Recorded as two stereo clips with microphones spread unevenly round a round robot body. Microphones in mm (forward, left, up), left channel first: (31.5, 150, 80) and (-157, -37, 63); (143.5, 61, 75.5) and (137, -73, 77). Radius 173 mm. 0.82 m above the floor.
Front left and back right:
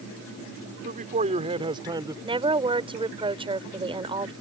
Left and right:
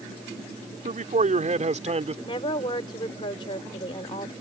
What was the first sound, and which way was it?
A man speaking, 70° right.